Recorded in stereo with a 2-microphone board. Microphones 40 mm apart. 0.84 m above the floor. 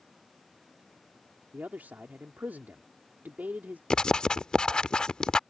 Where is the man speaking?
50° right (ahead or behind).